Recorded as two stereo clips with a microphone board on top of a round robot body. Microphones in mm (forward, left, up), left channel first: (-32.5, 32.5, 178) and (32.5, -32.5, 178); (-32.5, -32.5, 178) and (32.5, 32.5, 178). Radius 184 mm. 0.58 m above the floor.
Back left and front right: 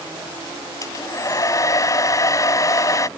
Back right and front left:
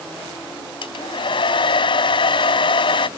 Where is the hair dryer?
170° right.